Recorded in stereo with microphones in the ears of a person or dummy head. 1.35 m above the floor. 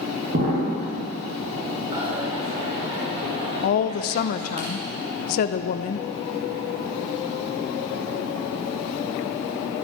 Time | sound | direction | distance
0.3 | an explosion | 45° right (ahead or behind) | 3 m
1.9 | a dropped coin | 30° right (ahead or behind) | 2.5 m
3.6 | a woman speaking | 50° left (ahead or behind) | 0.7 m